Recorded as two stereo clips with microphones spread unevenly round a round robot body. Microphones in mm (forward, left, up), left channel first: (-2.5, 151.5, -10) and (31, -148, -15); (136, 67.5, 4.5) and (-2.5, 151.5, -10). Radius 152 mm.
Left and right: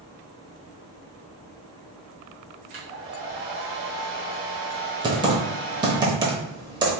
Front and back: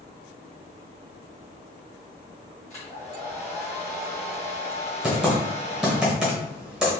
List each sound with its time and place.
2.7 s a hair dryer: 100° right, 1.7 m
5.0 s typing on a keyboard: 140° right, 0.7 m